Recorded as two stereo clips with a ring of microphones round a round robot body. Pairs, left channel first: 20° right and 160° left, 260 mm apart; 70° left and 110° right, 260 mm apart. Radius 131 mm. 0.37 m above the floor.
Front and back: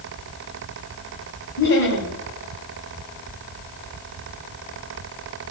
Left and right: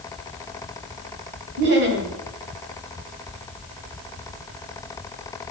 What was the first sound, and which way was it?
Laughter, 65° right.